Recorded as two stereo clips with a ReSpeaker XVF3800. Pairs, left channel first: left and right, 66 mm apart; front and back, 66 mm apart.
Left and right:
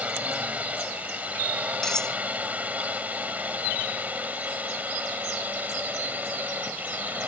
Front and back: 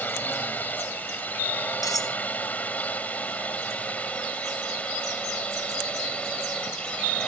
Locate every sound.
0.0 s a drone: 40° right; by 7.3 s 55° right
1.8 s cutlery clinking: 10° left